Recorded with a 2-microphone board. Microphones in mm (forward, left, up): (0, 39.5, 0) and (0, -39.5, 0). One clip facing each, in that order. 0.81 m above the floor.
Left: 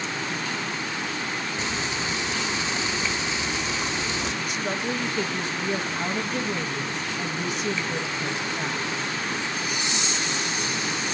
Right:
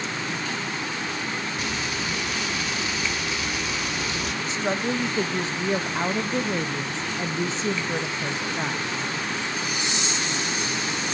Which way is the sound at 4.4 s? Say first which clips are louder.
Right 2 dB; 30° right (ahead or behind).